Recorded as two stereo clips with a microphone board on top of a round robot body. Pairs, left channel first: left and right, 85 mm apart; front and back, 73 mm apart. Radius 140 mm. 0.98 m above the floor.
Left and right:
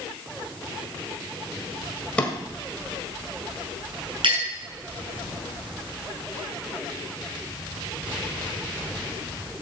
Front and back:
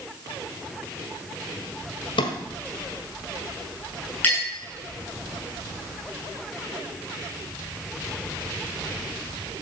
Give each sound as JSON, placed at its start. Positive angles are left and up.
{"t": 2.2, "sound": "a drawer", "azimuth_deg": 15, "distance_m": 1.7}
{"t": 4.2, "sound": "a clink", "azimuth_deg": -65, "distance_m": 8.5}